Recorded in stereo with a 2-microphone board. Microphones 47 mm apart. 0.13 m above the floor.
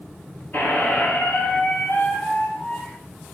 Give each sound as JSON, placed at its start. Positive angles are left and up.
{"t": 0.5, "sound": "a squeak", "side_deg": 50, "distance_m": 0.7}